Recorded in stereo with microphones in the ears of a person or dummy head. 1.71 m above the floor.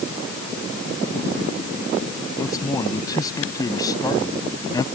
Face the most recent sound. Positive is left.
turn(degrees=15)  # may be behind; listen again after turning